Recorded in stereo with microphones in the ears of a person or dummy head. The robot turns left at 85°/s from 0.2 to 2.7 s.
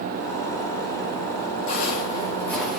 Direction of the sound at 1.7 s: 65° left (ahead or behind).